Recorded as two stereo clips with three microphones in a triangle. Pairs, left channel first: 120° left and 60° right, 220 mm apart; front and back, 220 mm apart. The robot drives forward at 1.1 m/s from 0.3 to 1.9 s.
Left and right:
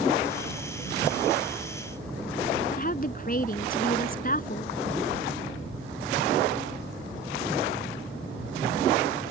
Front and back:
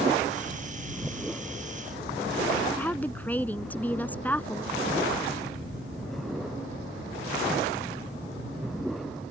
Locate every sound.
2.7 s a woman speaking: 80° left